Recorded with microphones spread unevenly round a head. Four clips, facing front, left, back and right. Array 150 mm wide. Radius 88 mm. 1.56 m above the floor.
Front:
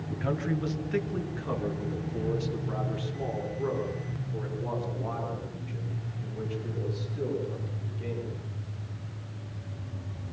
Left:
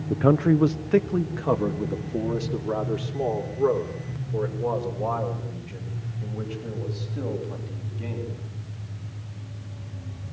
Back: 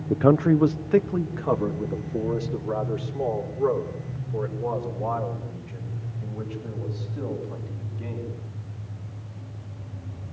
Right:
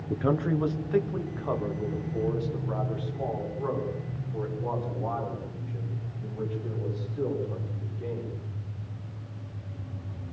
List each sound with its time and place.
0.1 s a man speaking: 165° left, 0.7 m; by 8.4 s 95° left, 11 m